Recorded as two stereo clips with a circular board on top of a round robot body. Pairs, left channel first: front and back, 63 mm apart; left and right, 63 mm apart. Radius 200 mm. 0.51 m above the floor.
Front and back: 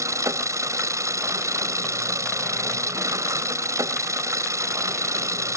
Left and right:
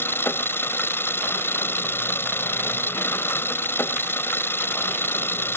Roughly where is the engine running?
Behind left.